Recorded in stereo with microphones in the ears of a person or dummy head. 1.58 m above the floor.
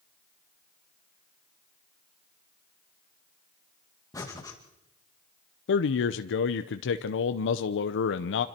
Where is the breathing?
15° left (ahead or behind), 2 m.